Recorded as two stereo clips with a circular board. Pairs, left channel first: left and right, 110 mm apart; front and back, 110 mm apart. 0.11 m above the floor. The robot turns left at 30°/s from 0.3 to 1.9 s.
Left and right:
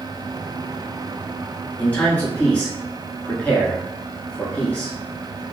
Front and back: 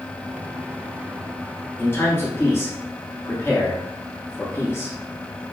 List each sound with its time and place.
1.8 s a man speaking: 35° left, 1.2 m; by 5.0 s 30° left, 1.2 m